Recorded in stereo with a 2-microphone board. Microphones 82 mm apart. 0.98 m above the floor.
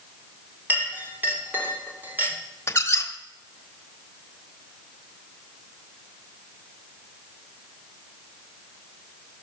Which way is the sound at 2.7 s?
30° left (ahead or behind).